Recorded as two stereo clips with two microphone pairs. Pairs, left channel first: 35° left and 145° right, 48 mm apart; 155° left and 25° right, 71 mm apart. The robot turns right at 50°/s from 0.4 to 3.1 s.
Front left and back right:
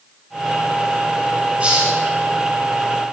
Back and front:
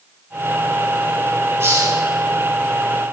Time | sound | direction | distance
1.6 | a hiss | 90° right | 6 m